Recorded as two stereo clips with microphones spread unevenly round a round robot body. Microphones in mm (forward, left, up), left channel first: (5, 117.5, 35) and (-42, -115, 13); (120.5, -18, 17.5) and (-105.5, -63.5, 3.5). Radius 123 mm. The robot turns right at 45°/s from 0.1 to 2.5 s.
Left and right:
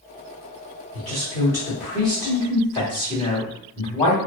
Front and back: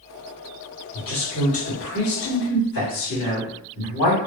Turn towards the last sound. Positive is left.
turn(degrees=5)